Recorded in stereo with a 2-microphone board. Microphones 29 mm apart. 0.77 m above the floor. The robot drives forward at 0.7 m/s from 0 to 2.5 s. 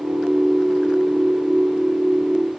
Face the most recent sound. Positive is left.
No sound to turn to.